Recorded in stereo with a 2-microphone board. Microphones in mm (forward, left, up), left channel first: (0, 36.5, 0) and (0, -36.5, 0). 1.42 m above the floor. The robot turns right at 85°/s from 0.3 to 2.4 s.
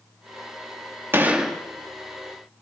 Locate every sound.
1.1 s a gunshot: 35° right, 1.8 m; by 1.6 s 5° left, 1.8 m